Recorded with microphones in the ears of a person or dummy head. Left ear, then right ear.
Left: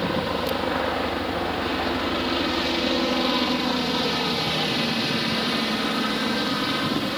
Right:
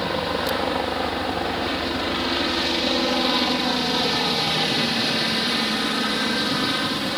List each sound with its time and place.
0.0 s a helicopter: 15° right (ahead or behind)